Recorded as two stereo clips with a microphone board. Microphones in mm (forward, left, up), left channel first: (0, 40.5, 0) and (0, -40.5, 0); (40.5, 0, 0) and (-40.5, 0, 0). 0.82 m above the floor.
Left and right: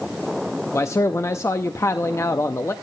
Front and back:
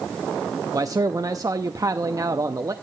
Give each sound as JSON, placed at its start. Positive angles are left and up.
{"t": 0.7, "sound": "a man speaking", "azimuth_deg": 140, "distance_m": 0.7}